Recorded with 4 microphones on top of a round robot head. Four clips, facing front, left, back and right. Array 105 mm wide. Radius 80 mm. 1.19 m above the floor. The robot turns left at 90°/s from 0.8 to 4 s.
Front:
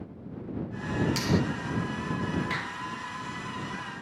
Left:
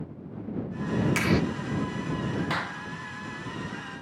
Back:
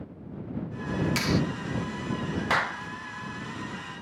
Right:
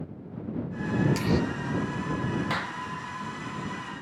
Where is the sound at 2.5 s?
Straight behind; by 2.8 s 155° left.